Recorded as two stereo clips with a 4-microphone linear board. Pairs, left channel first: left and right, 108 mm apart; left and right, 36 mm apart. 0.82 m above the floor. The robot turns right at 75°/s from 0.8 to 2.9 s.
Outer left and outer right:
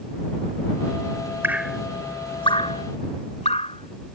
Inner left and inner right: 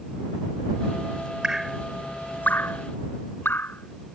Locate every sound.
1.4 s dripping: 20° right (ahead or behind); by 4.2 s 80° left